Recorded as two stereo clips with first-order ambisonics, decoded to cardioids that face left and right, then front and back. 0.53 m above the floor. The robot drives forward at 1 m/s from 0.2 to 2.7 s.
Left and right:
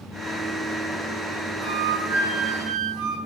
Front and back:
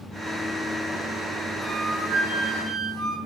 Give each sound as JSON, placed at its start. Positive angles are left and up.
{"t": 1.6, "sound": "a flute", "azimuth_deg": -105, "distance_m": 5.0}